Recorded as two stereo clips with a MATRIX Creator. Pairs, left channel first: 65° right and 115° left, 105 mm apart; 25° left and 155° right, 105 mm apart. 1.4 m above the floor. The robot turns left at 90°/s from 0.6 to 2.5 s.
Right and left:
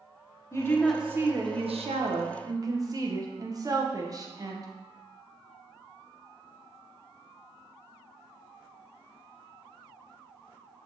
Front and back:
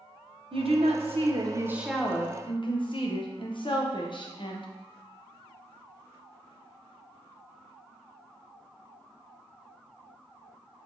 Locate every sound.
0.5 s a woman speaking: 130° right, 0.6 m; by 4.7 s 60° left, 0.6 m